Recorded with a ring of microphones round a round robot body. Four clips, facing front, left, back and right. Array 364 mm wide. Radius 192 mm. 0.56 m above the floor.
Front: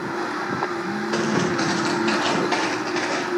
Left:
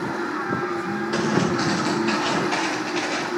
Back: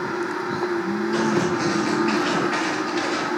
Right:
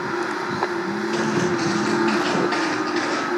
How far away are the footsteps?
About 6.5 m.